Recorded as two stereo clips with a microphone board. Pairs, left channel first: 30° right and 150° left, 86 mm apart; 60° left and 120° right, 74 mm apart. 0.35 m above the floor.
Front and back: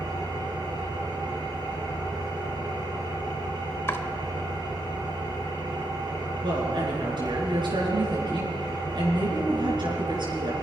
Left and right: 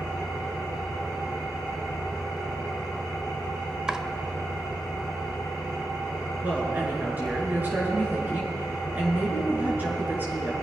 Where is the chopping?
50° right, 0.8 m.